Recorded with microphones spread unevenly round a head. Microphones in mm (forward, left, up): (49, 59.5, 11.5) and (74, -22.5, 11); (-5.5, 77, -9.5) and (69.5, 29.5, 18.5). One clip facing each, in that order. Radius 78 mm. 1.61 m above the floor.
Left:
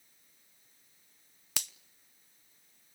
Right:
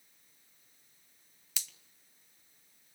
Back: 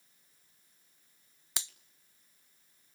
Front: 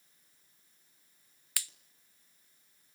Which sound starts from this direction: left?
A finger snap, at 1.6 s.